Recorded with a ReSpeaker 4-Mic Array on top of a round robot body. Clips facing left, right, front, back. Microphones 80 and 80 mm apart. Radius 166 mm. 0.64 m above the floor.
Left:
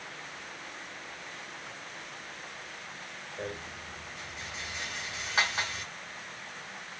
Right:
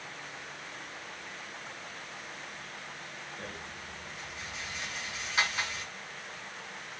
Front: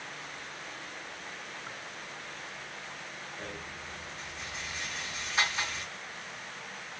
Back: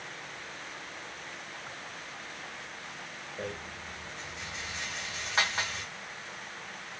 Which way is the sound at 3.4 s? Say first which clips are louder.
Left 8 dB, back 6 dB; 140° left.